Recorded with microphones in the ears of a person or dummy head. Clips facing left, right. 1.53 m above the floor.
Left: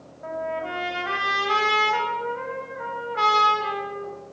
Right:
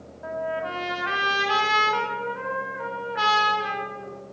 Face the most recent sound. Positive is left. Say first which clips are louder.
# even
turn(degrees=0)  # may be behind; listen again after turning